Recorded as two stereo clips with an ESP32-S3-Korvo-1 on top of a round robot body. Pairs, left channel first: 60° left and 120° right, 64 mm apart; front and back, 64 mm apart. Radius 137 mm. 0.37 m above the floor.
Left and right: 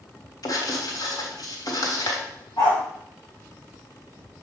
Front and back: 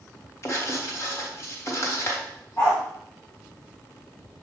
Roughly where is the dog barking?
Ahead left.